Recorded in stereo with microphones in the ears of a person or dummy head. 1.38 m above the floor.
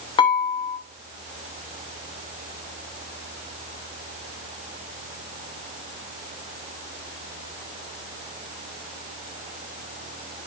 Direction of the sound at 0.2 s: 30° left (ahead or behind).